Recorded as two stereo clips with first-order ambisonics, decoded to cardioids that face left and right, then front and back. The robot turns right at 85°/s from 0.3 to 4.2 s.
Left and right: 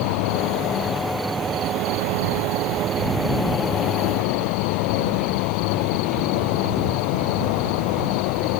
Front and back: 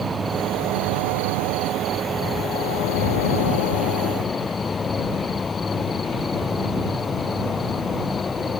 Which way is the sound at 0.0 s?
105° left.